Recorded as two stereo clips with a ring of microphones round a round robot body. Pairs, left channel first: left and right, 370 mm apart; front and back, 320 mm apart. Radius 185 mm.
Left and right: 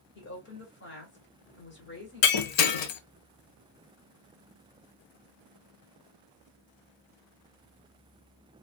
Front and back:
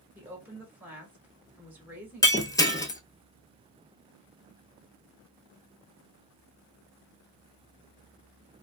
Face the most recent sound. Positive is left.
turn(degrees=80)